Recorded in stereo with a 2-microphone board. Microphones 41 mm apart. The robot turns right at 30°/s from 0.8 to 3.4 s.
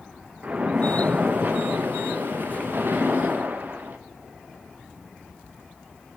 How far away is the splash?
About 0.6 m.